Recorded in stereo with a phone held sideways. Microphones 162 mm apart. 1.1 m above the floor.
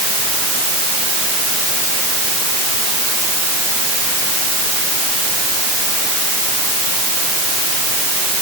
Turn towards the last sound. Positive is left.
No sound to turn to.